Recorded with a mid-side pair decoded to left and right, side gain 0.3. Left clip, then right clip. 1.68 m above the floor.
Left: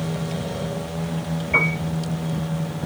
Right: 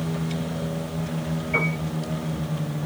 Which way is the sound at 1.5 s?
55° left.